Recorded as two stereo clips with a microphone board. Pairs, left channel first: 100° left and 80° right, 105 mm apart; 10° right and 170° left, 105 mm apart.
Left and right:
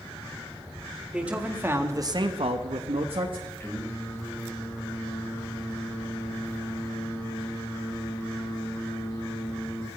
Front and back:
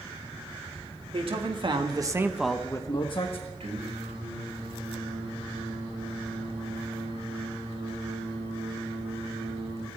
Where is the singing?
160° left, 4.5 m.